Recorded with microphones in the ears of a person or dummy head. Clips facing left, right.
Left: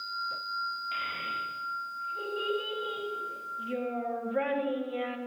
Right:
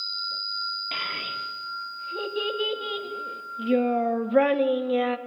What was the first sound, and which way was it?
A child speaking, 80° right.